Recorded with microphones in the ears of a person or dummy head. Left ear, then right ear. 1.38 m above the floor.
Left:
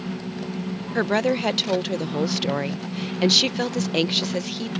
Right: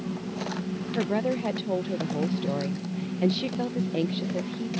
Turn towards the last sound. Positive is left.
turn(degrees=60)  # may be behind; listen again after turning